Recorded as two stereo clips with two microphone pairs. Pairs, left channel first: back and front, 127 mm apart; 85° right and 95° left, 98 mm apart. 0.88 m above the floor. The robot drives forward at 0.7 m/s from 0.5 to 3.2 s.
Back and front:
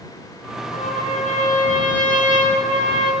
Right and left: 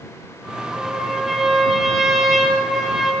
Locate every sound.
0.7 s a trumpet: 170° right, 8 m; by 3.1 s 175° right, 9.5 m